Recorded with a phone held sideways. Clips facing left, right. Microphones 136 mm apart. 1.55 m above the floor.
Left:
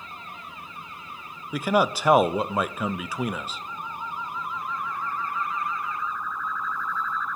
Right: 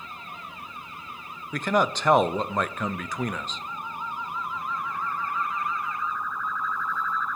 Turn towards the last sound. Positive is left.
turn(degrees=10)  # may be behind; listen again after turning